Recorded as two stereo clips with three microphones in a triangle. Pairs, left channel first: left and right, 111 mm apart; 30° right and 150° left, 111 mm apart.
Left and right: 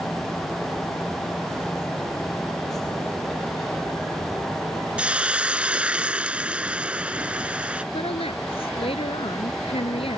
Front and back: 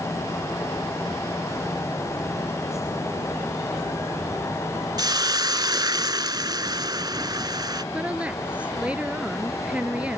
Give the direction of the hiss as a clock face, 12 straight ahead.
6 o'clock.